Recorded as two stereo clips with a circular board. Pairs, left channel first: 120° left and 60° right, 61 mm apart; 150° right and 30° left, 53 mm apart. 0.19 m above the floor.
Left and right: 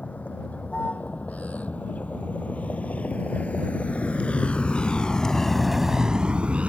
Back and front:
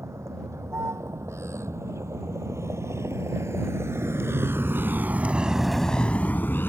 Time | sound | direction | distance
0.0 | a vehicle | 55° left | ?